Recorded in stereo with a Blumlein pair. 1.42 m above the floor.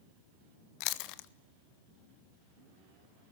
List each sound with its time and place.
0.8 s chewing: 45° left, 0.8 m